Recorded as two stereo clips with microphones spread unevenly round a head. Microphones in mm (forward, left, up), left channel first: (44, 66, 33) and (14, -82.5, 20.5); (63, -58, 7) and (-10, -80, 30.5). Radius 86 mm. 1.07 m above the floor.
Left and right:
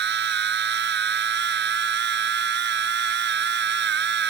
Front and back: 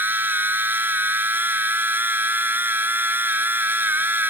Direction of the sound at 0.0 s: 100° right.